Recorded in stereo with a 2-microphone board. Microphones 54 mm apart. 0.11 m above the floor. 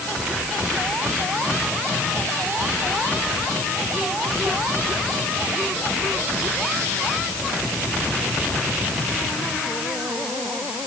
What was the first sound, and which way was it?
Only background noise.